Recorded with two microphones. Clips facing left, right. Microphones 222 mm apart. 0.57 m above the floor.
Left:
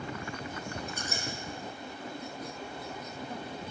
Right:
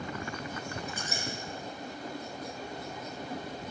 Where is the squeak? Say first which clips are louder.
Even; centre (ahead or behind), 1.3 m.